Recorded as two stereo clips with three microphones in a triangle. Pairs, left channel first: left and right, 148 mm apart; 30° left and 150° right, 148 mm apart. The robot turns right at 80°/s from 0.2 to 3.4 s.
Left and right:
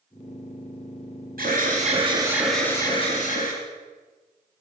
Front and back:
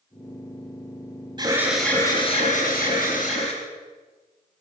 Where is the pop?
I don't hear a pop.